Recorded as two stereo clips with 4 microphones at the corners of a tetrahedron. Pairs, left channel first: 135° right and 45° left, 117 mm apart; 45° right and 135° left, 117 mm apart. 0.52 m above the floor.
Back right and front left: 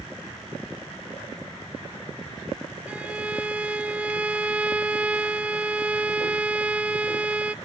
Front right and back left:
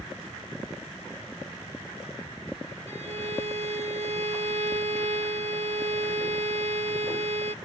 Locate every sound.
2.9 s a violin: 120° left